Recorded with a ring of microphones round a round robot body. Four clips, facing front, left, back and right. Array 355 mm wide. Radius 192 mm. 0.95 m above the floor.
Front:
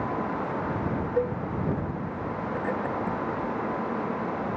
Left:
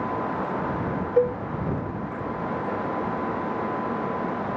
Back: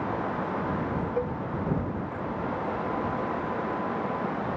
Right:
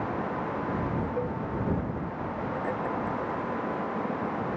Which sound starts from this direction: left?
A cowbell, at 1.2 s.